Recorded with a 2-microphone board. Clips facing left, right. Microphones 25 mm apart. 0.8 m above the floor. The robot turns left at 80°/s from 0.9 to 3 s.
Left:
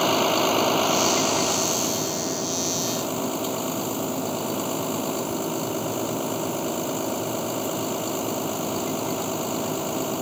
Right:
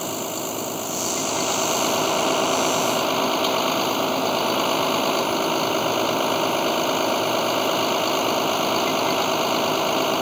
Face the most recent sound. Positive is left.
turn(degrees=-130)